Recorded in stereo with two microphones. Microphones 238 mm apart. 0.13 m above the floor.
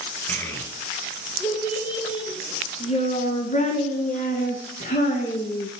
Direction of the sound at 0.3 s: 10° left (ahead or behind).